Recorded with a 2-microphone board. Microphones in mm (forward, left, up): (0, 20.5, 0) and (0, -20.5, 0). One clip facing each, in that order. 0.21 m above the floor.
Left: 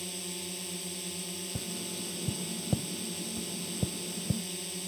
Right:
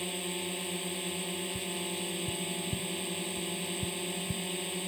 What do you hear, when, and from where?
0.0 s a drone: 30° right (ahead or behind)
1.6 s tapping: 75° left (ahead or behind)